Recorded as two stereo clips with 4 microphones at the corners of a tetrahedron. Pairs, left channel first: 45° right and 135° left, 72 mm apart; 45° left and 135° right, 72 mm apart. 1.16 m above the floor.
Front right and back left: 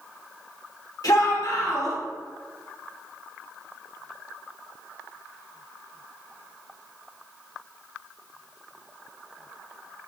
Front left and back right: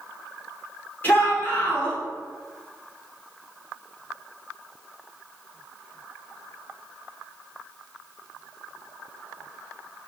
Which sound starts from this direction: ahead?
A shout, at 1.0 s.